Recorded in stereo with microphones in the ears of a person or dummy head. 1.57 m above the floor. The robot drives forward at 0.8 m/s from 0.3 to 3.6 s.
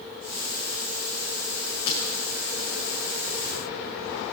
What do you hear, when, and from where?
1.9 s breaking glass: 25° left (ahead or behind), 5 m